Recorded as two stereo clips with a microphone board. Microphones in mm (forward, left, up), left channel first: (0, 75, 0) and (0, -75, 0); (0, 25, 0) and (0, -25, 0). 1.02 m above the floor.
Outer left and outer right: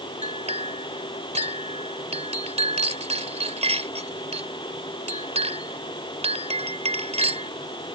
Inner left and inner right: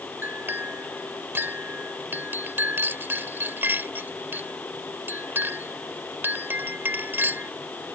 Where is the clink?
45° right (ahead or behind).